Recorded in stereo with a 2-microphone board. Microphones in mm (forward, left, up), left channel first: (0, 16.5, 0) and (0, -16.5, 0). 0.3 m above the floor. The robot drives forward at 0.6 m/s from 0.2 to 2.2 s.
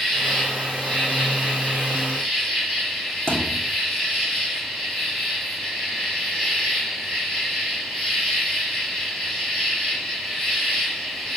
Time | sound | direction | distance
0.0 | an insect | 10° left (ahead or behind) | 3 m
3.3 | a thud | 10° left (ahead or behind) | 2 m